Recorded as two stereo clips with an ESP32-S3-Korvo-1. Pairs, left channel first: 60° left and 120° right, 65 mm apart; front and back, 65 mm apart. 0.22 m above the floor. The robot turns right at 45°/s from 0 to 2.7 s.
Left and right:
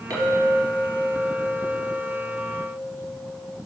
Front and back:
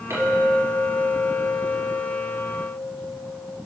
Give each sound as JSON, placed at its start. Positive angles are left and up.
{"t": 0.1, "sound": "a clink", "azimuth_deg": -145, "distance_m": 3.0}